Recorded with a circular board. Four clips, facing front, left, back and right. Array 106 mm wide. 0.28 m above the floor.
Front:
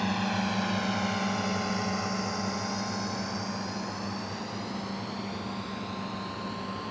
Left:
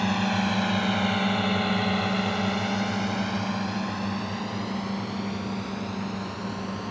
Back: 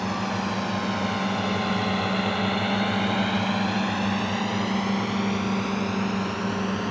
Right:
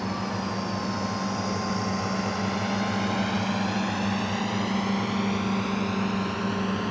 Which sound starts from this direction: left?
A drone, at 0.0 s.